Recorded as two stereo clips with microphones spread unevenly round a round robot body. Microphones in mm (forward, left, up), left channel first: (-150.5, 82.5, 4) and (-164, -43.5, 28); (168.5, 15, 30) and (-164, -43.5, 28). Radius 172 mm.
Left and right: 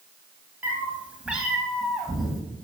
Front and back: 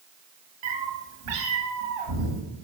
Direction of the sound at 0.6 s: 170° right.